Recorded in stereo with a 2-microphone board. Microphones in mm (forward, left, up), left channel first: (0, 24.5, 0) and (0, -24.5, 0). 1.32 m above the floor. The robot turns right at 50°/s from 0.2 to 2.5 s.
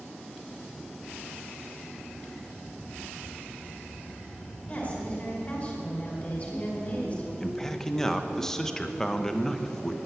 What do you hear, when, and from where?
4.7 s a woman speaking: 30° left (ahead or behind), 5 m
7.4 s a man speaking: 10° left (ahead or behind), 1.0 m